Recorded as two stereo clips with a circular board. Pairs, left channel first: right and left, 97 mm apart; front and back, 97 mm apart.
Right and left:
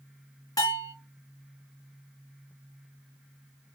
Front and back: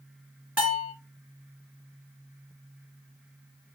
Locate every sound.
0.6 s a bell: 115° right, 2 m